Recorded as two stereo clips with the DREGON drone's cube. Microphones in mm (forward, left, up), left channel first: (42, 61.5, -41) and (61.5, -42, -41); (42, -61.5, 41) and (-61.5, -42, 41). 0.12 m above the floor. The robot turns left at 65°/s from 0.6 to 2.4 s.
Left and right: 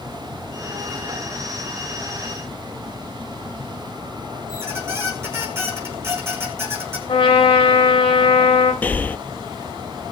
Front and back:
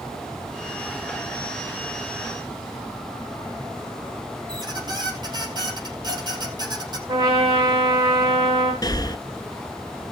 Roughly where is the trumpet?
Behind left.